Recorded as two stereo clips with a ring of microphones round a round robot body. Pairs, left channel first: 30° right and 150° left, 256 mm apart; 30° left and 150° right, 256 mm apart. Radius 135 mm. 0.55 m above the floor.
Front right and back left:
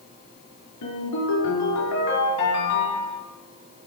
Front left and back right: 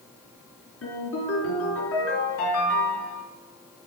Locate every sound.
0.8 s a ringtone: 10° right, 5 m